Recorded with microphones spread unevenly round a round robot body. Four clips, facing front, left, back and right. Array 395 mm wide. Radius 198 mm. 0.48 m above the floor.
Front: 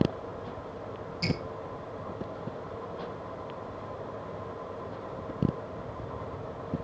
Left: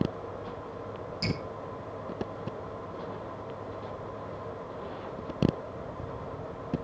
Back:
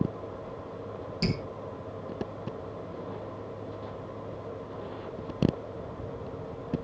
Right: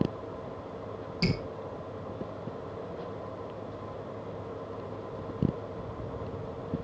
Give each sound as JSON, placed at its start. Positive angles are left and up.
{"t": 1.2, "sound": "dripping", "azimuth_deg": -150, "distance_m": 6.0}